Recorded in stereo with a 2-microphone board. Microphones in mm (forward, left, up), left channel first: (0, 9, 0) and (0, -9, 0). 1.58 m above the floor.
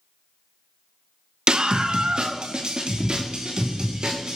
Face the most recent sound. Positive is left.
turn(degrees=-45)  # may be behind; listen again after turning